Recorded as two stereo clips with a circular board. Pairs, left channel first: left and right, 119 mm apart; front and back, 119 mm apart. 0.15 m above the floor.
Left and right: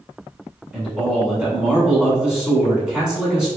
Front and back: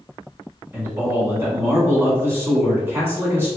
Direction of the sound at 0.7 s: 155° right.